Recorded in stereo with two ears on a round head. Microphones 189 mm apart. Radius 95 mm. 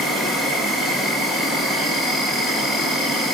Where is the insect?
Centre (ahead or behind), 2.5 m.